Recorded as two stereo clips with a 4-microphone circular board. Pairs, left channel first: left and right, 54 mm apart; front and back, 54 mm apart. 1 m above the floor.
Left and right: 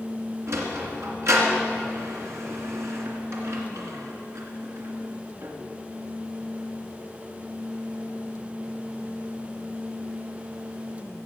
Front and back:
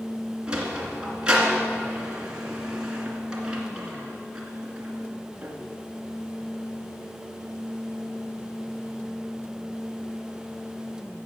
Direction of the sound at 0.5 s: 110° right.